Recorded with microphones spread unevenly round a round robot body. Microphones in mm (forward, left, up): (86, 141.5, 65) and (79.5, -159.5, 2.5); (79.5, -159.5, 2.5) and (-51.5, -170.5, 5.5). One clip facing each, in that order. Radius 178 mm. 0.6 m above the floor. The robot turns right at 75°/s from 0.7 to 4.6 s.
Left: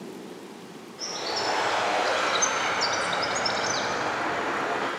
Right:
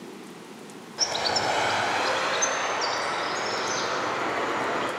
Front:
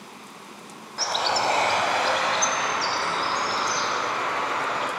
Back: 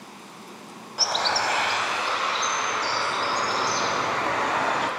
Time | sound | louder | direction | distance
1.0 | a bird | right 3 dB, front 1 dB | 95° right | 0.9 m